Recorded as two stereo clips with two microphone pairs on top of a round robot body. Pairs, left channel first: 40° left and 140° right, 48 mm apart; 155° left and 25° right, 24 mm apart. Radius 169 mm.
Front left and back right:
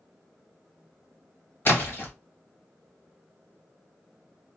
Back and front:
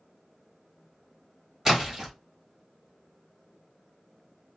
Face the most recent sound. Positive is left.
turn(degrees=40)